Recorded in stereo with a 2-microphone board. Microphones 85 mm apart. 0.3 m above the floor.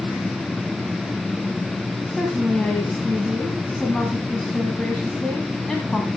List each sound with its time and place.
2.1 s a woman speaking: 5° left (ahead or behind), 2 m